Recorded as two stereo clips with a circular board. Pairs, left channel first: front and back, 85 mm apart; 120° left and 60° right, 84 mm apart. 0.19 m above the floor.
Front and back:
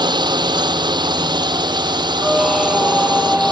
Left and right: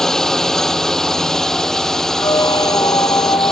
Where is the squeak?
90° left.